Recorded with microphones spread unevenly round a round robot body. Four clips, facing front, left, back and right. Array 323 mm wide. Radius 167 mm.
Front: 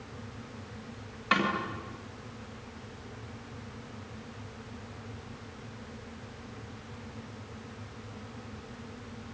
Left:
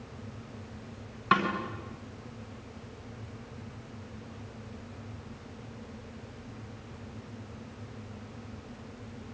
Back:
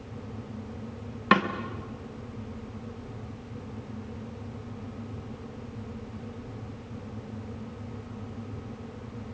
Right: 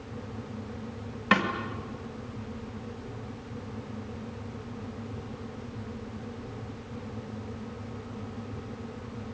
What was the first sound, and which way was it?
A snare drum, 175° right.